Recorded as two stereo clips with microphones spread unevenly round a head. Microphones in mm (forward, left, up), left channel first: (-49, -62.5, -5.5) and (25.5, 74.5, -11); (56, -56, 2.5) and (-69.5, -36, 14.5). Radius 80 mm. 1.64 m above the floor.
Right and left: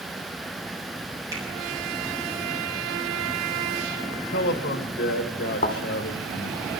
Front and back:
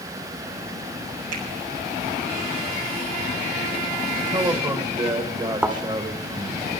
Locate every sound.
1.3 s a finger snap: 130° left, 8 m
4.2 s a man speaking: 140° right, 2 m
5.6 s a thud: 120° right, 1.8 m